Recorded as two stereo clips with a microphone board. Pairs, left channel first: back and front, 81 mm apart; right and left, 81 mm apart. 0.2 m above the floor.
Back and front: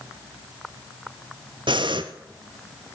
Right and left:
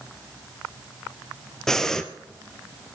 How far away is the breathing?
About 1.1 m.